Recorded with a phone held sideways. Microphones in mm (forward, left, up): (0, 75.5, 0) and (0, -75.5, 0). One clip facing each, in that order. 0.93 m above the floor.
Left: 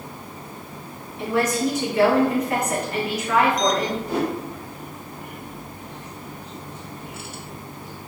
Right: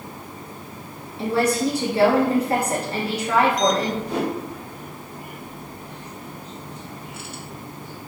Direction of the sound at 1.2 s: 30° right (ahead or behind).